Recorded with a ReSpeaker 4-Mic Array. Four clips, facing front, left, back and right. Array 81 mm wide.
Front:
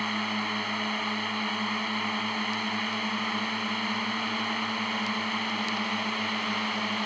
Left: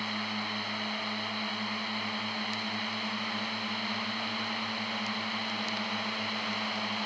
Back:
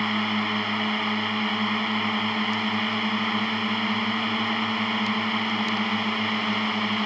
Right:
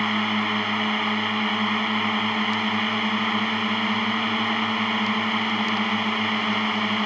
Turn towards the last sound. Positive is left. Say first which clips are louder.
# right 12 dB, back 5 dB
turn(degrees=-105)